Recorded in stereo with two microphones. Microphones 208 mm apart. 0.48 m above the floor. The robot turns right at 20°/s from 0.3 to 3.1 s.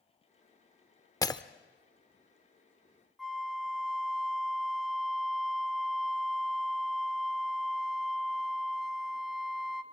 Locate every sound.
1.2 s breaking glass: 15° left (ahead or behind), 0.6 m; by 1.4 s 20° left (ahead or behind), 0.6 m
3.2 s a flute: centre (ahead or behind), 1.0 m